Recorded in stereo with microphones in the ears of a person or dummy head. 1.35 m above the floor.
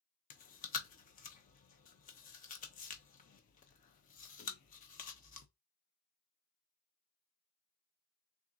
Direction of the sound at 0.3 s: 40° left (ahead or behind).